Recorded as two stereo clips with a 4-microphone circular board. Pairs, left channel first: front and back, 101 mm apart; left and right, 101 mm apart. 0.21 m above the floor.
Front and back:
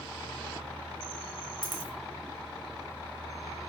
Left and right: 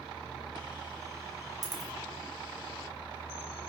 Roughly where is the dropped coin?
Ahead right.